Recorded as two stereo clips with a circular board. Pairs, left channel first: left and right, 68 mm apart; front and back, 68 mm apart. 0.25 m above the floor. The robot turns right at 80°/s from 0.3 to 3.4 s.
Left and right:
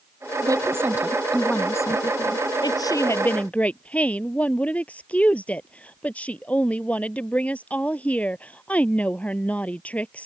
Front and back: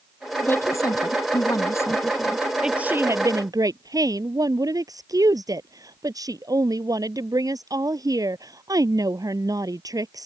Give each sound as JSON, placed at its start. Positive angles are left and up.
{"t": 0.4, "sound": "a woman speaking", "azimuth_deg": -65}
{"t": 2.6, "sound": "a woman speaking", "azimuth_deg": 100}